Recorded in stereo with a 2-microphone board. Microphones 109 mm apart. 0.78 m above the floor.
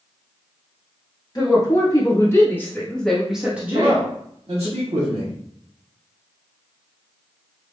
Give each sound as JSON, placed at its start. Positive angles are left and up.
{"t": 1.4, "sound": "a woman speaking", "side_deg": 35, "distance_m": 1.4}
{"t": 3.7, "sound": "a man speaking", "side_deg": -70, "distance_m": 1.3}